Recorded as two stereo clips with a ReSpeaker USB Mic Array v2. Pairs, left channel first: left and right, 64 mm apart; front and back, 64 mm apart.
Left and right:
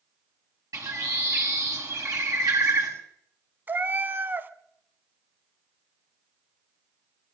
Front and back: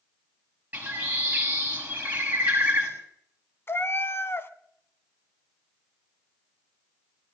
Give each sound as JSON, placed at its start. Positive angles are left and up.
{"t": 0.7, "sound": "a bird", "azimuth_deg": -115, "distance_m": 6.0}
{"t": 3.7, "sound": "a cat meowing", "azimuth_deg": -40, "distance_m": 0.6}